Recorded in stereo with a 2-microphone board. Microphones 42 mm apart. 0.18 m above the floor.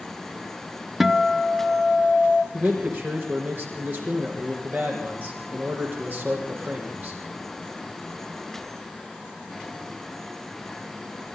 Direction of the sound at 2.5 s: 45° right (ahead or behind).